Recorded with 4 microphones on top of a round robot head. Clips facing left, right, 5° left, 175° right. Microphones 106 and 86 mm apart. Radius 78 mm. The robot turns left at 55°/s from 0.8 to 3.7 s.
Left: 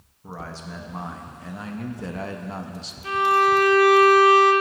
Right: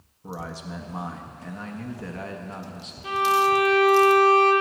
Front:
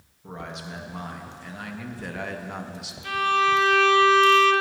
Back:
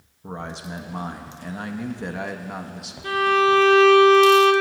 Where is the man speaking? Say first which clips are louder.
Right 1 dB, back 3 dB; 155° right, 0.6 m; by 2.9 s 85° left, 0.6 m.